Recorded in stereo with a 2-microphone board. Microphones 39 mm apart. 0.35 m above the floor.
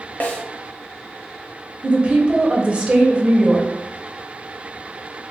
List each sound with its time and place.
0.2 s a snare drum: 45° left (ahead or behind), 0.8 m
1.8 s a woman speaking: 30° right (ahead or behind), 1.0 m